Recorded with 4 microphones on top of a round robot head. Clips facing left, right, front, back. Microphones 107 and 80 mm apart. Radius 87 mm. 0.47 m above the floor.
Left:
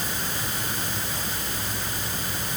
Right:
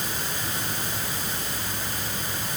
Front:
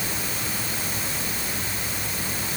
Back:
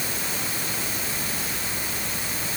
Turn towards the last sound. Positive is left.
No sound to turn to.